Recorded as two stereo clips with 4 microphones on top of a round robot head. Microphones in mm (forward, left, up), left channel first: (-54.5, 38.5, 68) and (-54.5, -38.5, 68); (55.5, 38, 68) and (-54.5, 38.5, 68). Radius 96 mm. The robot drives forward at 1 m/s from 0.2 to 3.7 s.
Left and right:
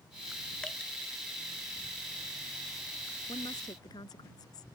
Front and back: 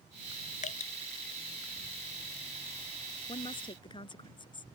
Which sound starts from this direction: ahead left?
A woman speaking, at 3.3 s.